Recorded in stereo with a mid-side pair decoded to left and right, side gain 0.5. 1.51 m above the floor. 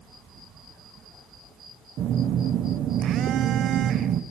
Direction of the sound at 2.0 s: 65° right.